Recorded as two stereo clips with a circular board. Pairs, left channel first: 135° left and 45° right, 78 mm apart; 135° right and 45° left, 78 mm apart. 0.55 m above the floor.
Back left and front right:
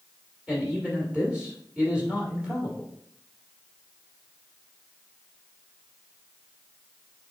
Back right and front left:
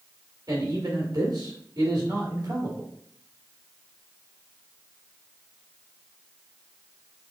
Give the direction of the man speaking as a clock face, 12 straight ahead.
11 o'clock.